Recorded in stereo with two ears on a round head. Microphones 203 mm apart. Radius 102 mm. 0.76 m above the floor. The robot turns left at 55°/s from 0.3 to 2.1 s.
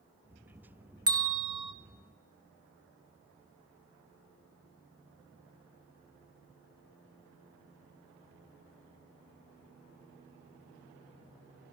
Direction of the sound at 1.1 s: 20° right (ahead or behind).